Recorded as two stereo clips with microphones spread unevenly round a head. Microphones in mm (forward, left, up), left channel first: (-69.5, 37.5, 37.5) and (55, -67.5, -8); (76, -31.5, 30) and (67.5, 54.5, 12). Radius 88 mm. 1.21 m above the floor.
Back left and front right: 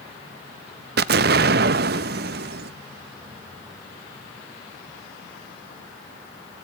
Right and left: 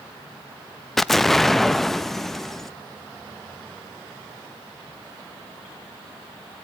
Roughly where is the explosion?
Ahead.